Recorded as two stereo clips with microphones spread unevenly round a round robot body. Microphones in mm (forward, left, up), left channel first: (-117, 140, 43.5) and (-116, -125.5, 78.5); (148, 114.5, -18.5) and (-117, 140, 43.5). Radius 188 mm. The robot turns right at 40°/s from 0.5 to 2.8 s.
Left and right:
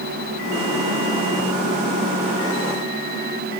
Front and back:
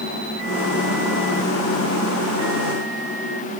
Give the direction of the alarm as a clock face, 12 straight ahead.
I don't hear an alarm.